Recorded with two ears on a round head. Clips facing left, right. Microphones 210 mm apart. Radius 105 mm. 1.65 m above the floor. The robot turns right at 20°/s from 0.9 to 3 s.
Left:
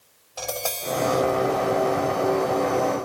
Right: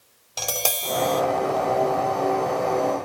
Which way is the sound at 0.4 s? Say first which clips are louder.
Even; 45° right (ahead or behind).